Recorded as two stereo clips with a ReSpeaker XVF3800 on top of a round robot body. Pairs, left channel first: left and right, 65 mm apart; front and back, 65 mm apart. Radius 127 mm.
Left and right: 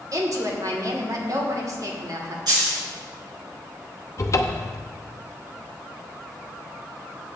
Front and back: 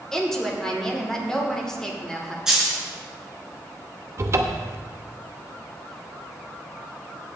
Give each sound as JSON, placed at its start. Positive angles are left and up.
{"t": 0.1, "sound": "a woman speaking", "azimuth_deg": -80, "distance_m": 2.5}
{"t": 2.5, "sound": "a dropped coin", "azimuth_deg": -100, "distance_m": 4.0}
{"t": 4.2, "sound": "a cupboard door", "azimuth_deg": 130, "distance_m": 0.8}